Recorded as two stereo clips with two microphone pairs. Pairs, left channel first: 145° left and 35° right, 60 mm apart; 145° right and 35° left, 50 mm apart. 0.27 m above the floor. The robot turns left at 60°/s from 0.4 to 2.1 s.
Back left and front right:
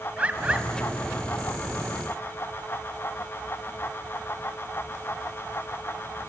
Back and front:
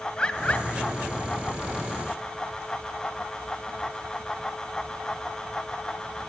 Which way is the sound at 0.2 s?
90° right.